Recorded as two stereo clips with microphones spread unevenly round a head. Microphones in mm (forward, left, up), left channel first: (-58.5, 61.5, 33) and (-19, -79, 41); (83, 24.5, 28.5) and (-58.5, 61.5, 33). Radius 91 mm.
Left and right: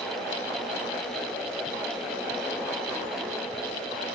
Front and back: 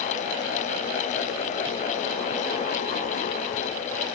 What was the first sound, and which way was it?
Only background noise.